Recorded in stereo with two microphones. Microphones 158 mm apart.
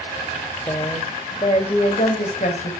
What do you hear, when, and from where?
0.7 s a woman speaking: 20° left (ahead or behind), 2 m; by 2.7 s 55° left (ahead or behind), 3 m